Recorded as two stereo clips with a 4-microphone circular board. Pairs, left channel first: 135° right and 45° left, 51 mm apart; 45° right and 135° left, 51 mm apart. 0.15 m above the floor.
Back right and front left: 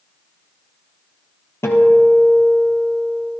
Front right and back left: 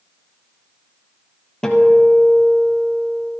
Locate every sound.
1.6 s a guitar: 120° right, 2 m